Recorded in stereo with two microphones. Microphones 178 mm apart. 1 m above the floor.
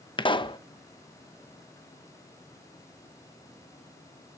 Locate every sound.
0.2 s a pop: 25° left (ahead or behind), 0.9 m